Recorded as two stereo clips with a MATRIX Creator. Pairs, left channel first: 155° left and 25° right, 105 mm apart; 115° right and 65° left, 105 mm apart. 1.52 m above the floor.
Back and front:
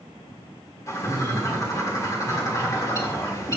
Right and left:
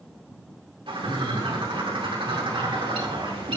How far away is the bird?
About 2 m.